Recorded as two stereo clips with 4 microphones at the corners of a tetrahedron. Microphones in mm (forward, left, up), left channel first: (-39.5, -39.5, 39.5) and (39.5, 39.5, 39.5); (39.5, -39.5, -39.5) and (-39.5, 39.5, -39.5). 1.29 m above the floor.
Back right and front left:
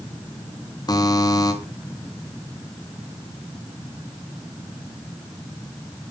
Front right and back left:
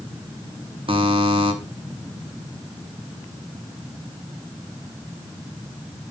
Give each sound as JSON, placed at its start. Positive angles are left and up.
{"t": 0.9, "sound": "a buzzer", "azimuth_deg": 170, "distance_m": 3.0}